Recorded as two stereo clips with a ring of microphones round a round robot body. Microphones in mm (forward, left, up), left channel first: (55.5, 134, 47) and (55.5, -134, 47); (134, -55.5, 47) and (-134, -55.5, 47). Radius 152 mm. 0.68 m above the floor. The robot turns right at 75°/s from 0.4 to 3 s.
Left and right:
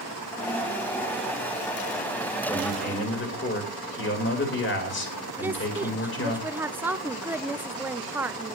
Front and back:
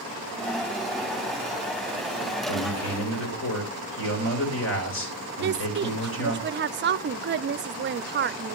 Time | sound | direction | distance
2.5 | a man speaking | 5° left | 3 m
5.4 | a woman speaking | 170° right | 0.5 m